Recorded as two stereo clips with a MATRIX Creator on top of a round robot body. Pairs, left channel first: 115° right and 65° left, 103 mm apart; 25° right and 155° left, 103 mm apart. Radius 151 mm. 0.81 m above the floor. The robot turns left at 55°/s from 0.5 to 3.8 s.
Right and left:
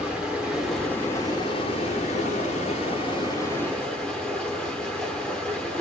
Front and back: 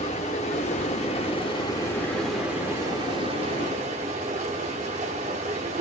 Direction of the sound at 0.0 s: 15° right.